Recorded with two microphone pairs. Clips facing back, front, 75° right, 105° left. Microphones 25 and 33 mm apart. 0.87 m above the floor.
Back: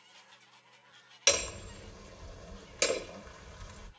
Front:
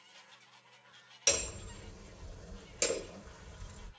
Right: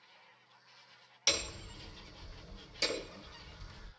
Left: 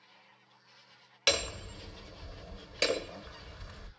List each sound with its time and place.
1.3 s hammering: 115° left, 0.8 m